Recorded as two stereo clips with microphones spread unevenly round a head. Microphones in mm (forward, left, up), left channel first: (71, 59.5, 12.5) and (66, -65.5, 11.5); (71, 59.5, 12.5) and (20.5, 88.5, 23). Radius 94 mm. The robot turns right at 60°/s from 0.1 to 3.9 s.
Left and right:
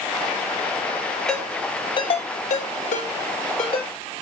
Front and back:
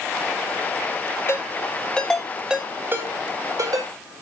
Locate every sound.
1.3 s a ringtone: straight ahead, 6.5 m; by 3.9 s 155° left, 6.5 m